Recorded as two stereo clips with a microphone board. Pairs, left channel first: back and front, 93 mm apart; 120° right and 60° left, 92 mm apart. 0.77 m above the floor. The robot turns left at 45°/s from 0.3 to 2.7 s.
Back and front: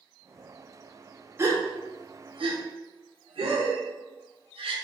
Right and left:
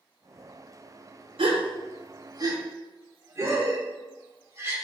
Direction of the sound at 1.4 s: 60° left.